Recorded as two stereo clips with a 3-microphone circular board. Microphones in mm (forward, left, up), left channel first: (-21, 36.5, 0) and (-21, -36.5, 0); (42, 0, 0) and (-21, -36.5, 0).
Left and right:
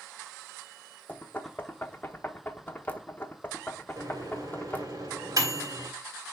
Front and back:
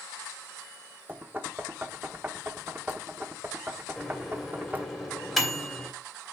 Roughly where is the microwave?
Ahead right.